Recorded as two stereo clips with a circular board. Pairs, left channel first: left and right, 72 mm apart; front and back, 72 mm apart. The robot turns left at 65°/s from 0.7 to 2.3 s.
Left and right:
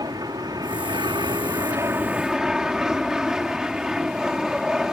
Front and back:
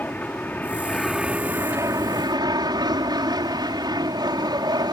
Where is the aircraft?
65° right; by 5.0 s 170° right.